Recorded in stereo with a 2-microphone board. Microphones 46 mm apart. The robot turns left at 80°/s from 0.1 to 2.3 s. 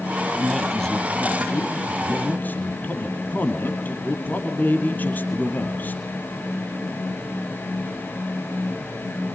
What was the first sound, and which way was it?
A man speaking, 155° right.